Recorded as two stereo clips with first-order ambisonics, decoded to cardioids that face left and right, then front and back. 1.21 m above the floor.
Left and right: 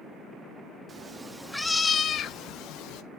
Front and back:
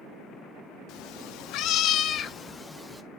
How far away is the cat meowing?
About 1.0 m.